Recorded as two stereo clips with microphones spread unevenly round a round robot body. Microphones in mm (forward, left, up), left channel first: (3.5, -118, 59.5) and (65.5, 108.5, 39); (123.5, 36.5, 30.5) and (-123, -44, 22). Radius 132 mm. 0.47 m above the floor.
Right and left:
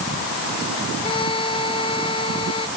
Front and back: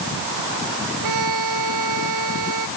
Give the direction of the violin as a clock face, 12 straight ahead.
6 o'clock.